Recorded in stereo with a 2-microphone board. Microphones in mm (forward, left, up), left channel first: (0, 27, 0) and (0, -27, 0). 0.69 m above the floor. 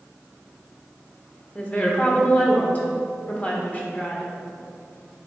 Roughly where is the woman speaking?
Left.